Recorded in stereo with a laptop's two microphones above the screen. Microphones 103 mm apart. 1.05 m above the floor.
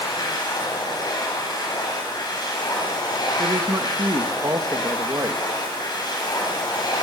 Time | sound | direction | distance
0.0 | a machine running | 45° left (ahead or behind) | 4.5 m
3.4 | a woman speaking | 40° right (ahead or behind) | 1.5 m